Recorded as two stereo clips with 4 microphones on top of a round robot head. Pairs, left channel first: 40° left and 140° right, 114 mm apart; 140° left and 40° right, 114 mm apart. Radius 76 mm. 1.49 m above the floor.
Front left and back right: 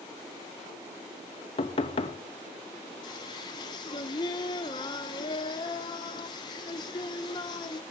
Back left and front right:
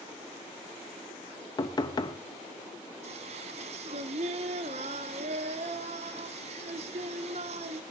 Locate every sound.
1.6 s knocking: 85° left, 0.7 m
3.0 s singing: 10° right, 0.7 m